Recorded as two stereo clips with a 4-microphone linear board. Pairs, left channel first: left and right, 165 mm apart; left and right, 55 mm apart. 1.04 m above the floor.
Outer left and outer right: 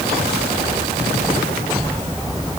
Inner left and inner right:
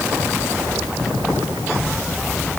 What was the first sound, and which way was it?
Only background noise.